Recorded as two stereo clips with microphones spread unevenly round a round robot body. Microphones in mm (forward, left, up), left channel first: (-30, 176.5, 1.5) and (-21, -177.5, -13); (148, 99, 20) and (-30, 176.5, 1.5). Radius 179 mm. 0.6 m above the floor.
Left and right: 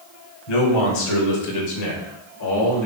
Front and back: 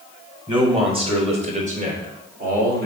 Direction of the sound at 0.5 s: 90° left.